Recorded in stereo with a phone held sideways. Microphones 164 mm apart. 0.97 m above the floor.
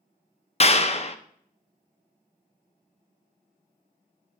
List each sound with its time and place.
0.6 s a clap: 40° left (ahead or behind), 0.5 m